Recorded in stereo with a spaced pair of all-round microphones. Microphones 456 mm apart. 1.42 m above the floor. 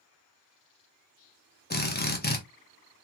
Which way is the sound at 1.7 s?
20° left (ahead or behind).